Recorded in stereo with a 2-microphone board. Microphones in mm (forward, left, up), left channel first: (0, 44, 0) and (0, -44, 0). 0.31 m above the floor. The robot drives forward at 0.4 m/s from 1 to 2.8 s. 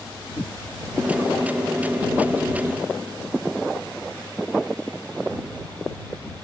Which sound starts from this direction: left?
A whoosh, at 0.4 s.